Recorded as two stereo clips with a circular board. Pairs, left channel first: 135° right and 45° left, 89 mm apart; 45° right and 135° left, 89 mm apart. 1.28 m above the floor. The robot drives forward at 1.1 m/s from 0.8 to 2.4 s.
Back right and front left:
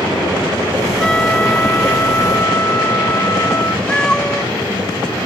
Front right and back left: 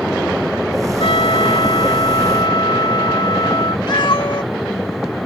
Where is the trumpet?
55° right; by 3.8 s 75° right.